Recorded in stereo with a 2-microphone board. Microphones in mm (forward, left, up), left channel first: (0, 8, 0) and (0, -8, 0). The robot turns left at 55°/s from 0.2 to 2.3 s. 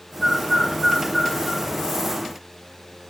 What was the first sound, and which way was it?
A bird, 75° left (ahead or behind).